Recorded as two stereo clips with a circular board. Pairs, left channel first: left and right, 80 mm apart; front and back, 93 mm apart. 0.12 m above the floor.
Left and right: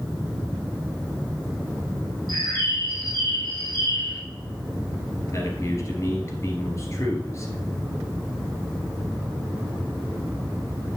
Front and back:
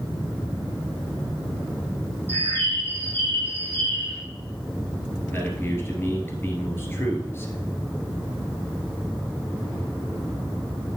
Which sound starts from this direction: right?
A bird, at 2.3 s.